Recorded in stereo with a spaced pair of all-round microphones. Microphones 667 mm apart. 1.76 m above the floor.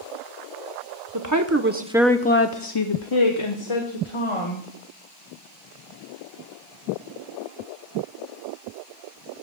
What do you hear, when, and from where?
1.1 s a woman speaking: 30° right (ahead or behind), 1.1 m; by 4.7 s 50° left (ahead or behind), 2 m